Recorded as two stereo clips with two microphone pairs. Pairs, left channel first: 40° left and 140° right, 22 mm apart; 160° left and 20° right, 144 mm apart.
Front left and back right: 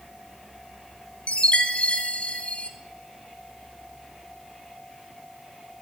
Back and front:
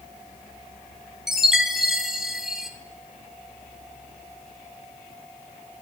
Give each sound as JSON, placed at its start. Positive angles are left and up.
{"t": 1.3, "sound": "a chime", "azimuth_deg": 65, "distance_m": 1.2}